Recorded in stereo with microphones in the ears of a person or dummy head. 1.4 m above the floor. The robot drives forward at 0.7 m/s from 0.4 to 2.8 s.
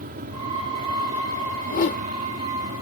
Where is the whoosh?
45° left (ahead or behind); by 2.1 s 50° left (ahead or behind).